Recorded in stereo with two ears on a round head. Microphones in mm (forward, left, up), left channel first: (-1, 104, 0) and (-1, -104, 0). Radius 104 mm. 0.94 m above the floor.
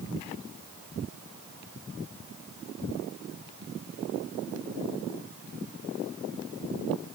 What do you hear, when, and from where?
Only background noise.